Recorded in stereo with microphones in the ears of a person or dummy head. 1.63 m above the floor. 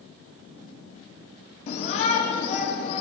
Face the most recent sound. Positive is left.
turn(degrees=25)  # may be behind; listen again after turning